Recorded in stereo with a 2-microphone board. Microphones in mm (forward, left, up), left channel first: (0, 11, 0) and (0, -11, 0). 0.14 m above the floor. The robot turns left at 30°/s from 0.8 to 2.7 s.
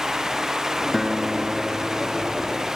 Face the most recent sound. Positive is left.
turn(degrees=-55)